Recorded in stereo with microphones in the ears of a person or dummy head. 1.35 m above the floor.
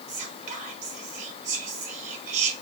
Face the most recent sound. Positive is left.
turn(degrees=-40)  # may be behind; listen again after turning